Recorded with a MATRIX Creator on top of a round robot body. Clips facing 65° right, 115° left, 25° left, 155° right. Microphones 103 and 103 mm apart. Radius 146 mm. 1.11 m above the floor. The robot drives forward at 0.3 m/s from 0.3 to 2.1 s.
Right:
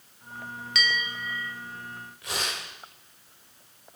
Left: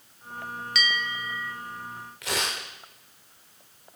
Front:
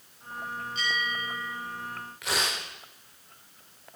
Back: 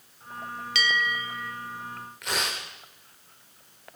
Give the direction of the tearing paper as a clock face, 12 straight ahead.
8 o'clock.